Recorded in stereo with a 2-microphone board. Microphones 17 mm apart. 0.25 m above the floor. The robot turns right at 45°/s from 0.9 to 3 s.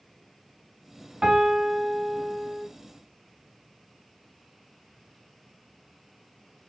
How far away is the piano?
About 1.4 m.